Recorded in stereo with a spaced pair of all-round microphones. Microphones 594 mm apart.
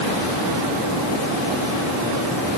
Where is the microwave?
I don't hear a microwave.